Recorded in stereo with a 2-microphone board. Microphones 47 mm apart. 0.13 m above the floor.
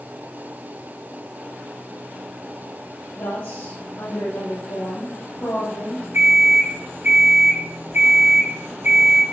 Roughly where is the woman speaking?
Left.